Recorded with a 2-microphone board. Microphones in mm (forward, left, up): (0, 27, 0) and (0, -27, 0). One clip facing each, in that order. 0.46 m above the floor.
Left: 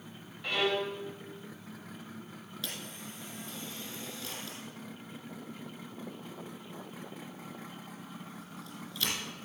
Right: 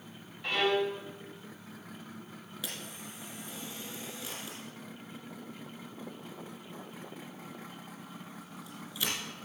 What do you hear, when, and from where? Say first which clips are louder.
0.4 s a violin: right 2 dB; centre (ahead or behind), 1.7 m
2.6 s a camera shutter: even; 10° right (ahead or behind), 3.5 m